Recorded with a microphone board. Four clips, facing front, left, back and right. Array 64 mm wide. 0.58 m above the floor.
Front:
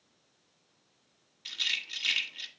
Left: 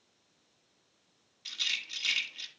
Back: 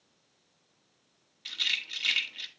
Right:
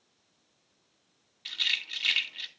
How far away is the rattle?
About 1.3 m.